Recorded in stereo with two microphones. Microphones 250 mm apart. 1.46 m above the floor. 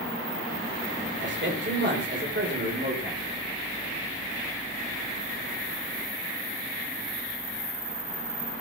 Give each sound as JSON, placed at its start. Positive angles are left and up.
{"t": 1.2, "sound": "a man speaking", "side_deg": -45, "distance_m": 5.5}